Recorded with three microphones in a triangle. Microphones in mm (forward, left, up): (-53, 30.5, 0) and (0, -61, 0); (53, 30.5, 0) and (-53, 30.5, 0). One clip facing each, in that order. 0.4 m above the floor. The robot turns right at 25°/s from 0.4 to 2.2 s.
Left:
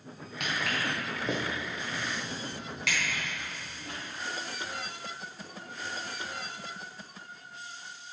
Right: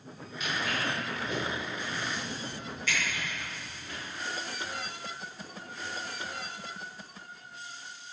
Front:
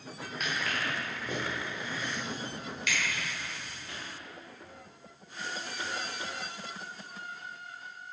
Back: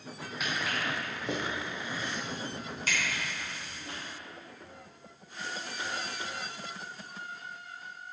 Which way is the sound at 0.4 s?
95° left.